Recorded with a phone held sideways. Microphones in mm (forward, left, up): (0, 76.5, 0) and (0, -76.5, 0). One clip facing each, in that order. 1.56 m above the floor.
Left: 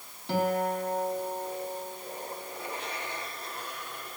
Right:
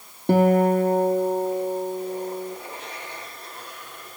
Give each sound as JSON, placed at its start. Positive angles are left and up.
{"t": 0.3, "sound": "a guitar", "side_deg": -55, "distance_m": 1.2}